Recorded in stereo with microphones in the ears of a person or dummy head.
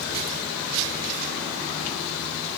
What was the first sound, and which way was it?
Only background noise.